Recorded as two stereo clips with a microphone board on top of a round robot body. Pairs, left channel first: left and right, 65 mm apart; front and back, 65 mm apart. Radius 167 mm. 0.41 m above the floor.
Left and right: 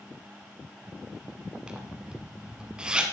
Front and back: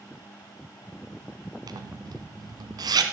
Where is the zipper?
170° right, 1.4 m.